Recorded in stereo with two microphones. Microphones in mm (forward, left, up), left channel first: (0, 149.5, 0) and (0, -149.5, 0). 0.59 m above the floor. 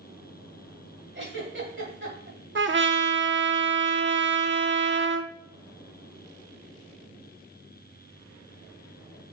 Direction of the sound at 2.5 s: 45° right (ahead or behind).